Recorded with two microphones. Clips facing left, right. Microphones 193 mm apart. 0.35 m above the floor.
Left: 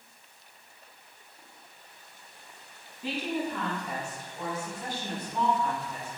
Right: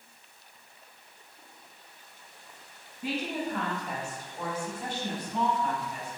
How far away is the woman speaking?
About 1.3 m.